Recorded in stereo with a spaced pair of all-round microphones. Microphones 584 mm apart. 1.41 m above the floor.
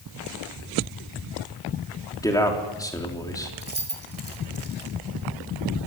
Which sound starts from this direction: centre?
A man speaking, at 2.2 s.